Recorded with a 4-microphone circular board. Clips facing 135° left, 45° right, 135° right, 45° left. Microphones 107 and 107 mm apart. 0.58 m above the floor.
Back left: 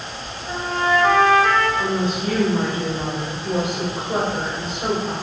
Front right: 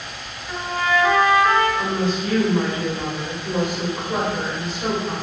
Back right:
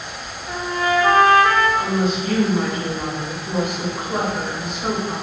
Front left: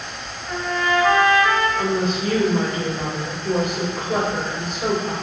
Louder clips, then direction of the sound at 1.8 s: Even, back right 1 dB; 70° left.